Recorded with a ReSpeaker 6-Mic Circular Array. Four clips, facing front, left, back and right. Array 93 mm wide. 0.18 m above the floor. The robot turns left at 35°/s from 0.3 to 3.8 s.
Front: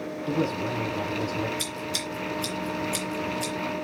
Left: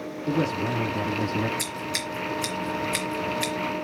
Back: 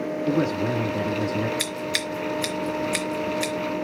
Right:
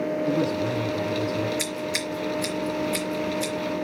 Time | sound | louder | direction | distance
0.3 | a man speaking | left 3 dB, back 3 dB | straight behind | 2 m
1.6 | scissors | right 3 dB, back 4 dB | 165° right | 3 m